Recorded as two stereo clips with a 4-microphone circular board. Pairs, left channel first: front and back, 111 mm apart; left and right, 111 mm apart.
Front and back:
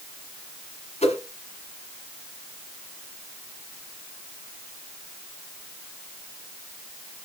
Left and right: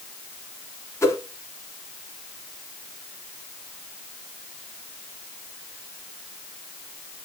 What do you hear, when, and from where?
1.0 s a whoosh: 25° left, 1.6 m